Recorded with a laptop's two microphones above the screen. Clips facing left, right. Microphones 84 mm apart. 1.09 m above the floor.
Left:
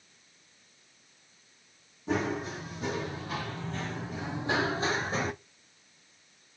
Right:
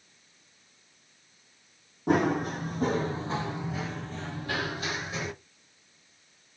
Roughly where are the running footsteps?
Right.